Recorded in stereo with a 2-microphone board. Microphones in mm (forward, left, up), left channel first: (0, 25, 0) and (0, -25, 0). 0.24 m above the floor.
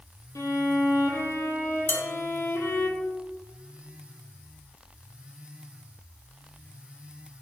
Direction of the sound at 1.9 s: 45° left (ahead or behind).